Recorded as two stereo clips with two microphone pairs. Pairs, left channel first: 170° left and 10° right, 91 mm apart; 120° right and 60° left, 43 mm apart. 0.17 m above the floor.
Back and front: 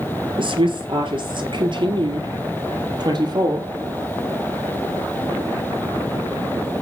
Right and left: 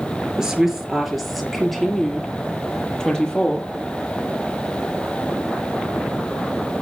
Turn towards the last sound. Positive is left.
turn(degrees=-50)